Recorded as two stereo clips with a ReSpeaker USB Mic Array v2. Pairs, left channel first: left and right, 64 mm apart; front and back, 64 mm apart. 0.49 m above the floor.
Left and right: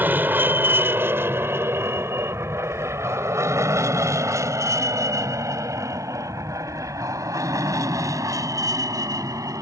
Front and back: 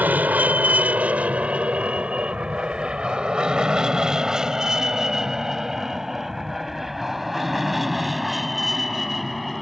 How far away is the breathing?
I don't hear breathing.